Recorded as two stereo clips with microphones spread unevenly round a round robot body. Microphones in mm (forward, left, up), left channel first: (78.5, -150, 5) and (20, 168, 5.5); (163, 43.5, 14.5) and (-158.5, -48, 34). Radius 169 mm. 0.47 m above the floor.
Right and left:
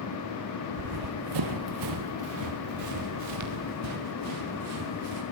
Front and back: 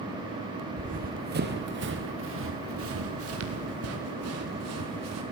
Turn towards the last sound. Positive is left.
turn(degrees=150)